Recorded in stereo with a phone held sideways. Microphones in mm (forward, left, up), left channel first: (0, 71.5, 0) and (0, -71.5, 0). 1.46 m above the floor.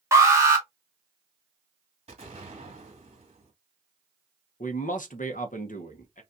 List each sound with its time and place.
0.1 s an alarm: 20° right (ahead or behind), 1.3 m
2.1 s an explosion: 50° right (ahead or behind), 2 m
4.6 s a man speaking: 65° left (ahead or behind), 0.9 m